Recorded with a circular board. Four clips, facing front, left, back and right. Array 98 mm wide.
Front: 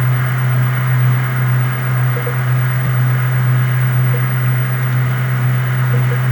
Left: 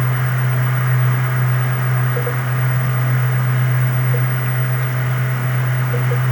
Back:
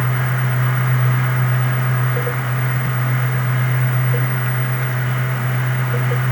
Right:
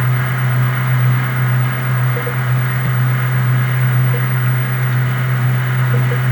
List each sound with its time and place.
Only background noise.